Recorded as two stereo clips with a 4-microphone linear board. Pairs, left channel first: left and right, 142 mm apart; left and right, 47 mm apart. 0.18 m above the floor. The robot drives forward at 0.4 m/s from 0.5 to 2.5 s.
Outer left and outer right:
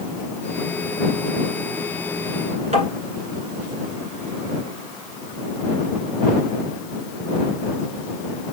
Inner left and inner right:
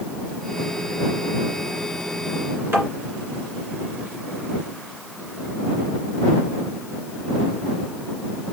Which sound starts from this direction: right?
Tapping, at 2.7 s.